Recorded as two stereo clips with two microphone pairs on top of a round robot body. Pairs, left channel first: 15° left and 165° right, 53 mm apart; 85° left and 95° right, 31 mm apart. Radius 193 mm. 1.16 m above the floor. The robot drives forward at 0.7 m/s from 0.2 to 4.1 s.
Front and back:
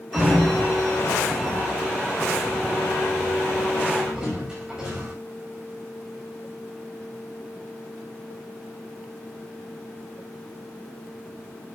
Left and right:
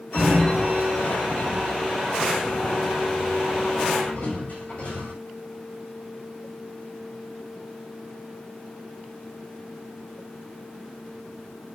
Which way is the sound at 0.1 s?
100° left.